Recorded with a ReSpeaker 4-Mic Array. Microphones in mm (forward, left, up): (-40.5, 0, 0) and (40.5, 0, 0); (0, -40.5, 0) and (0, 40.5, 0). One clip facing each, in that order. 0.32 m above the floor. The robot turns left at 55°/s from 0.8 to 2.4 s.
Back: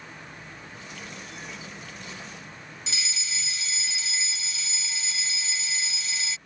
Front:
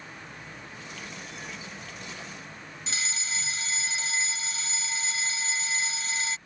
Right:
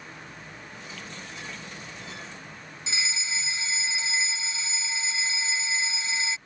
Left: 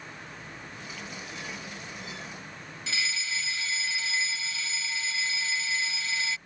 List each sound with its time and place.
2.9 s a fire alarm: 30° right